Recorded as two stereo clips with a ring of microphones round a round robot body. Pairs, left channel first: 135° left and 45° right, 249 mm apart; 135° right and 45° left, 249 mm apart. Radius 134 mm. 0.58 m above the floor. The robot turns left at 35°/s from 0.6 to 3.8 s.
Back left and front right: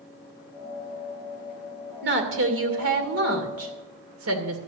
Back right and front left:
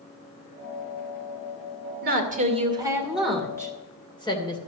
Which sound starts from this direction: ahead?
A woman speaking, at 2.0 s.